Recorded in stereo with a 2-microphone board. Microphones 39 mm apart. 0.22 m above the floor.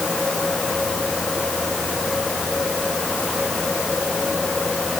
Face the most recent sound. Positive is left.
No sound to turn to.